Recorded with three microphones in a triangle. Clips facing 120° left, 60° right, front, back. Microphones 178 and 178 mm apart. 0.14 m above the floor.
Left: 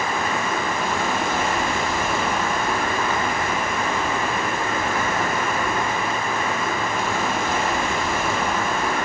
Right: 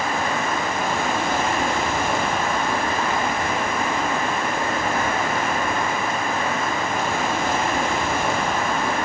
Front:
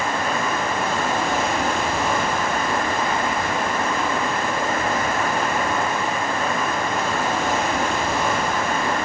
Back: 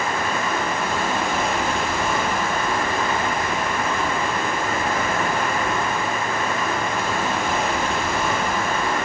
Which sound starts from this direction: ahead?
Running water, at 0.0 s.